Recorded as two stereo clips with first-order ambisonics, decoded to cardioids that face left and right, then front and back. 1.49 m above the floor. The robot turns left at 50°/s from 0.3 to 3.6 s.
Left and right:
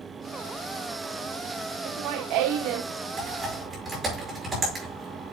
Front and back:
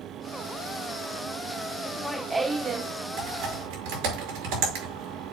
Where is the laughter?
70° right, 0.7 m; by 2.9 s 125° right, 0.7 m.